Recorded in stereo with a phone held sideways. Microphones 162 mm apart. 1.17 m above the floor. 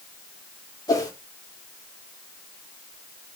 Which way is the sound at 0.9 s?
20° left (ahead or behind).